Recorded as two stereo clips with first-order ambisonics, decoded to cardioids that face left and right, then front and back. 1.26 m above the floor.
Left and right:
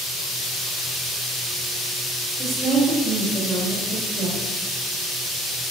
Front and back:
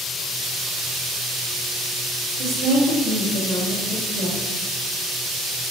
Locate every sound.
2.4 s a woman speaking: 150° right, 2.5 m